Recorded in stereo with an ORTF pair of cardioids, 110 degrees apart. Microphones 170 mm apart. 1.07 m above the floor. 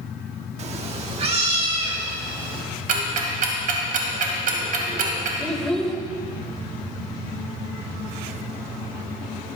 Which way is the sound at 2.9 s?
65° right.